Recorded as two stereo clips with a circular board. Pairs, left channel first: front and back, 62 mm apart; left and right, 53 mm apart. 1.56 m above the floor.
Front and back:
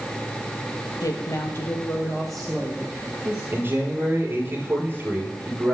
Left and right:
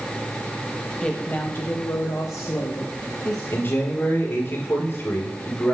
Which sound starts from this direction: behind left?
A man speaking, at 3.5 s.